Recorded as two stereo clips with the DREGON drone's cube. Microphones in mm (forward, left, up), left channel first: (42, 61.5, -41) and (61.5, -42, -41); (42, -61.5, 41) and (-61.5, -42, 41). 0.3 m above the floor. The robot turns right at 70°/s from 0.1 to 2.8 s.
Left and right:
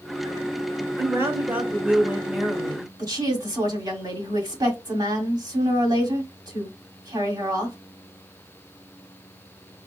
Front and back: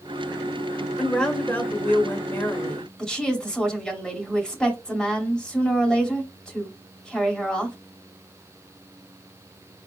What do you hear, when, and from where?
1.0 s a woman speaking: 95° right, 1.3 m; by 2.9 s 30° left, 1.3 m
3.0 s a woman speaking: 90° right, 2.0 m